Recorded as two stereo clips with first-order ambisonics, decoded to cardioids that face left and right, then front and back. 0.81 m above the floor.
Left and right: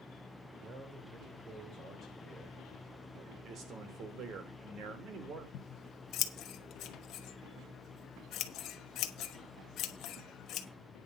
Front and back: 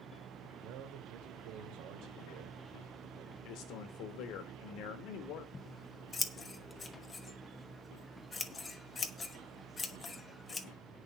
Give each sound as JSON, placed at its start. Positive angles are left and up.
{"t": 0.6, "sound": "a man speaking", "azimuth_deg": -155, "distance_m": 2.5}
{"t": 3.4, "sound": "a man speaking", "azimuth_deg": -35, "distance_m": 2.5}
{"t": 5.5, "sound": "scissors", "azimuth_deg": 70, "distance_m": 1.0}